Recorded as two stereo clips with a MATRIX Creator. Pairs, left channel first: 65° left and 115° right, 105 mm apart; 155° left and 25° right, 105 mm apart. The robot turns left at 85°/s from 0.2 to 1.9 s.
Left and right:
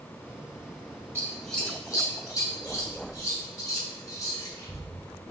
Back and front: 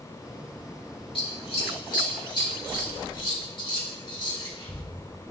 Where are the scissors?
175° right, 1.7 m; by 4.8 s 120° left, 1.7 m.